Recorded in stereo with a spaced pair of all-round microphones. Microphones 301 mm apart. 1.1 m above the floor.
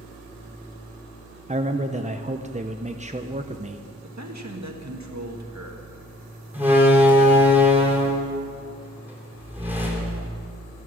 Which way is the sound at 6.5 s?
5° right (ahead or behind).